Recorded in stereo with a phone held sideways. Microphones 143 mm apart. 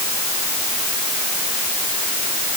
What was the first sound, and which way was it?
Only background noise.